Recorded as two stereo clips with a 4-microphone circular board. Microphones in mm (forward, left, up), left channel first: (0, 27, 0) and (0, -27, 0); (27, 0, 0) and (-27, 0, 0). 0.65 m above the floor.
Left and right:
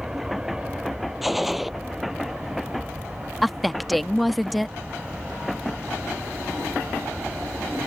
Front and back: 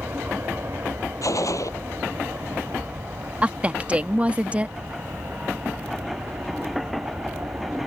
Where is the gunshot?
Straight ahead.